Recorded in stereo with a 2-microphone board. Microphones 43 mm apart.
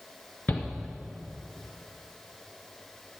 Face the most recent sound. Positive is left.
turn(degrees=40)  # may be behind; listen again after turning